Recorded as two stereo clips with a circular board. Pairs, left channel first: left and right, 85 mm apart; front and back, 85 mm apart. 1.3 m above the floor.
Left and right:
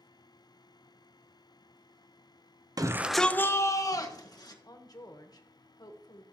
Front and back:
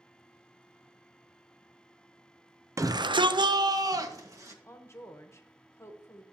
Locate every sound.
2.8 s a shout: 130° right, 0.5 m; by 4.5 s 130° left, 1.9 m
4.6 s a woman speaking: 55° left, 1.2 m